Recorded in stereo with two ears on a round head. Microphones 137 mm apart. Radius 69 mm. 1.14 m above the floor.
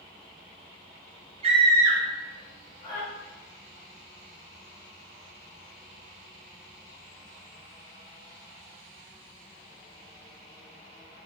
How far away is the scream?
About 0.5 m.